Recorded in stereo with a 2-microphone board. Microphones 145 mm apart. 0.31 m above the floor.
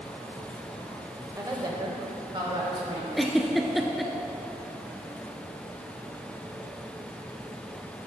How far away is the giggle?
About 0.7 m.